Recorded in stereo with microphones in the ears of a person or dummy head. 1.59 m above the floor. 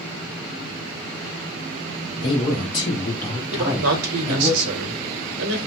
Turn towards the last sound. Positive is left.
turn(degrees=-75)  # may be behind; listen again after turning